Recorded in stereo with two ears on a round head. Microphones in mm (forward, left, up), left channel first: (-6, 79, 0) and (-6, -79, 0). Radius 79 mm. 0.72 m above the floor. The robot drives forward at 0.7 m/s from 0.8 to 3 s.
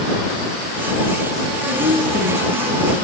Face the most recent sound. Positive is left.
turn(degrees=-65)  # may be behind; listen again after turning